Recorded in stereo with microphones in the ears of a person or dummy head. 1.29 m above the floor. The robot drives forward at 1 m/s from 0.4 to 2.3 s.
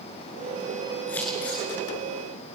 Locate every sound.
1.1 s scissors: 15° left (ahead or behind), 8.5 m